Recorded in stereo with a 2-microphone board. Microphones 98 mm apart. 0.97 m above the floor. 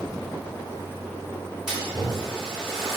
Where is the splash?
5° right (ahead or behind), 2.5 m.